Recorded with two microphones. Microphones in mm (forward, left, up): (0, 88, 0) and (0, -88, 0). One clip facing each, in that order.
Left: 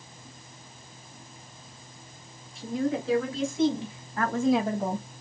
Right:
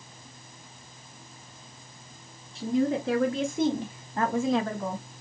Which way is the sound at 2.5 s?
75° right (ahead or behind).